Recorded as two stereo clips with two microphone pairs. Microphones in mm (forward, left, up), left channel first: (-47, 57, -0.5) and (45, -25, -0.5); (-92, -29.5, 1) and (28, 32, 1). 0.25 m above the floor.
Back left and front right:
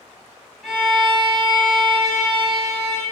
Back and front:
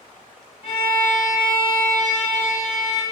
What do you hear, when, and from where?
0.6 s a violin: 130° right, 0.6 m